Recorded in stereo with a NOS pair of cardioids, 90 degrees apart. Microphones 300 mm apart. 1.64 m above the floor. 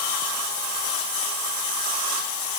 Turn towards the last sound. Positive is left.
No sound to turn to.